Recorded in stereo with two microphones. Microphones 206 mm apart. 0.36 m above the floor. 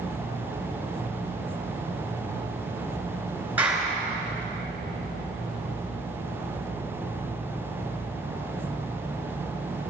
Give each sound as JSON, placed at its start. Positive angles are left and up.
{"t": 3.6, "sound": "a clap", "side_deg": -10, "distance_m": 4.0}